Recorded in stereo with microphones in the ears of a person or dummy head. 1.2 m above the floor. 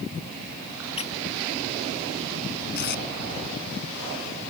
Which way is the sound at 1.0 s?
35° left (ahead or behind).